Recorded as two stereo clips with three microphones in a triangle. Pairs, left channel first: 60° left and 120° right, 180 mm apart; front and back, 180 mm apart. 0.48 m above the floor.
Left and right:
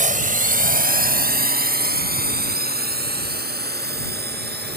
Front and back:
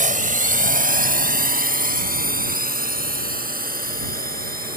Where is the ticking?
No ticking in this recording.